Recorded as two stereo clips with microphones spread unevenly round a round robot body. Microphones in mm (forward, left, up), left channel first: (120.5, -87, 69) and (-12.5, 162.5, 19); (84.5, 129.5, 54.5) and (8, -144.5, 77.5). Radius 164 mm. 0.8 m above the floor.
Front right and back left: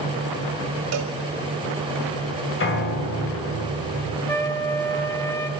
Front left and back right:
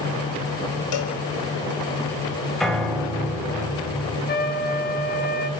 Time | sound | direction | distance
0.9 | a cowbell | 90° left | 4.5 m
2.6 | a piano | 15° right | 4.5 m
4.3 | a trumpet | 20° left | 2.5 m